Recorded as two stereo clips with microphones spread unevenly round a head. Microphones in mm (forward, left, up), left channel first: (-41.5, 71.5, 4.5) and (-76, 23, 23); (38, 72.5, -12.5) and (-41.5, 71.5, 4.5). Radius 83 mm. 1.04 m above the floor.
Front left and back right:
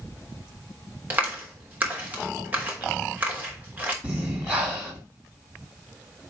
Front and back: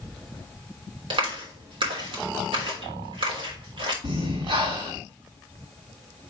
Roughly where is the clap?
Behind.